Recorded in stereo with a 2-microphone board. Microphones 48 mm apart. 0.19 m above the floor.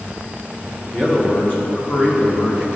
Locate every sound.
0.9 s a man speaking: 20° left (ahead or behind), 1.6 m; by 2.7 s 50° left (ahead or behind), 2 m